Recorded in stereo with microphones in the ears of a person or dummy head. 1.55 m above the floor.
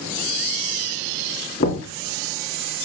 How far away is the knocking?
About 2.5 m.